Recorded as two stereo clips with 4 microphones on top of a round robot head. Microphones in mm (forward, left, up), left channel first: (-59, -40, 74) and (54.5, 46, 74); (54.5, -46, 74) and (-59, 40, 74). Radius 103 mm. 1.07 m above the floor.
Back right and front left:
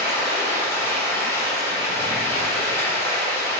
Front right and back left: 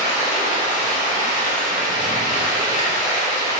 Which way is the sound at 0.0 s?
70° right.